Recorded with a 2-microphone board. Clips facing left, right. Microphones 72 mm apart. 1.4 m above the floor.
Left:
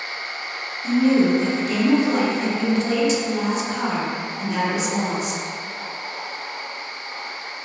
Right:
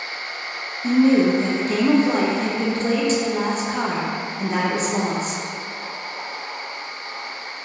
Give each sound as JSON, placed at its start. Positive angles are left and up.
{"t": 0.8, "sound": "a woman speaking", "side_deg": -40, "distance_m": 0.5}